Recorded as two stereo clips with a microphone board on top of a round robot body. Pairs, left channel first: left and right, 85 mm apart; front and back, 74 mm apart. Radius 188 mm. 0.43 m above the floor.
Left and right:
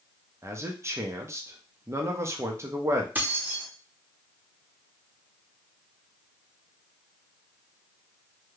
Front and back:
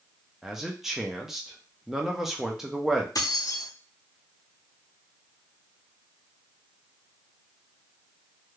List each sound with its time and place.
0.4 s a man speaking: 100° right, 1.0 m
3.1 s keys jangling: 25° right, 1.1 m